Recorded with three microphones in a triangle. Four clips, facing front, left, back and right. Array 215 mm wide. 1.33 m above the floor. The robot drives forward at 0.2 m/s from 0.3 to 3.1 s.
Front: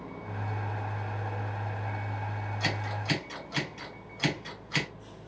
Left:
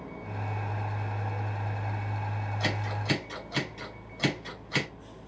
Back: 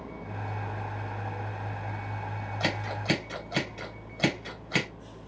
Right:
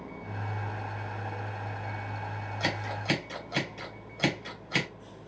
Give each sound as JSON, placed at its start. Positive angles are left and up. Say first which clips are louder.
{"t": 2.6, "sound": "scissors", "louder": "right 1 dB, back 3 dB", "azimuth_deg": -160, "distance_m": 3.0}